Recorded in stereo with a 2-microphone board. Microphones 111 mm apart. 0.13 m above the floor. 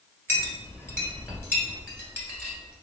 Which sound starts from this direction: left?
A clink, at 0.3 s.